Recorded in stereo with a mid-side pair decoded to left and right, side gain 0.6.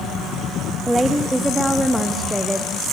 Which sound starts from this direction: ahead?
A woman speaking, at 0.9 s.